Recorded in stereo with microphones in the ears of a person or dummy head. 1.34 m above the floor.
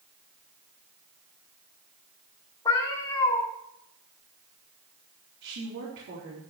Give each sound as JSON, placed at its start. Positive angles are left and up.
{"t": 2.6, "sound": "a cat meowing", "side_deg": 20, "distance_m": 2.0}
{"t": 5.4, "sound": "a woman speaking", "side_deg": -65, "distance_m": 3.5}